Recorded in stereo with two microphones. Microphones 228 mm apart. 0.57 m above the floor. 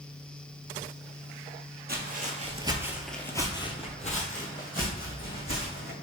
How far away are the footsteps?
About 0.7 m.